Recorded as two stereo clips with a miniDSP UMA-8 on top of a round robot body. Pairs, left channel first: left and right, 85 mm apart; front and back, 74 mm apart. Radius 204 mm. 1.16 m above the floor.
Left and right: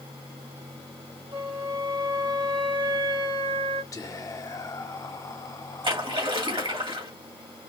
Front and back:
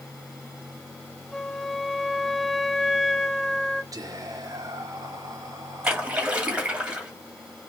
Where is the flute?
85° right, 2 m.